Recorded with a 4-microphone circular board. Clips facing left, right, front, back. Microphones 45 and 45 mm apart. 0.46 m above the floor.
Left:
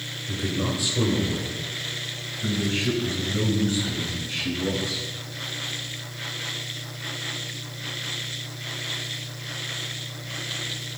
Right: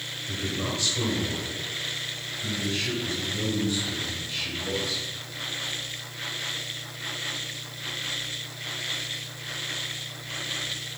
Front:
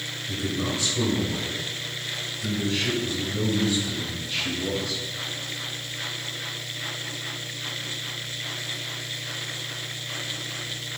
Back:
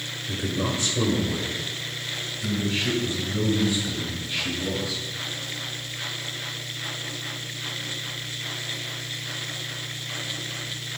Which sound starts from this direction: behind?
A man speaking, at 0.3 s.